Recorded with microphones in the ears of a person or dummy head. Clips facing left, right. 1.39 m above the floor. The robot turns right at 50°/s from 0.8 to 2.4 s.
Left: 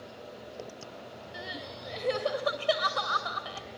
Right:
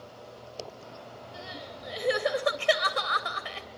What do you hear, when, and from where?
1.3 s crying: 155° left, 2.5 m; by 3.7 s 150° right, 2.5 m